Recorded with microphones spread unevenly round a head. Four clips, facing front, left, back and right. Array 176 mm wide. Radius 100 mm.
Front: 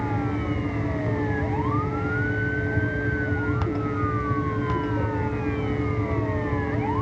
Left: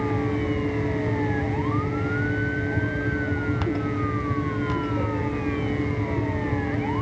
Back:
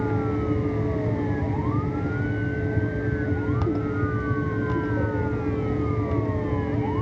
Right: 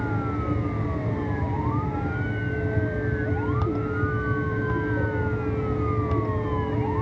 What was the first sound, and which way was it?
Only background noise.